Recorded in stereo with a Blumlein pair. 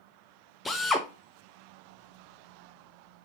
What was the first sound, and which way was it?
A drill, 10° left.